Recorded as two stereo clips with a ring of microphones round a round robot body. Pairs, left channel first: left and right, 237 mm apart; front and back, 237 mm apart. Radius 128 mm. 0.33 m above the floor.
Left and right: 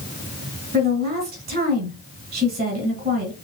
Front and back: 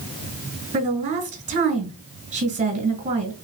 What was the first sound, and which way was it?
A woman speaking, 130° right.